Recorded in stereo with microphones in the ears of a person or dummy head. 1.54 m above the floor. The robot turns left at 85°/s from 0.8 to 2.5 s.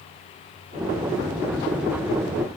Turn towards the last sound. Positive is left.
No sound to turn to.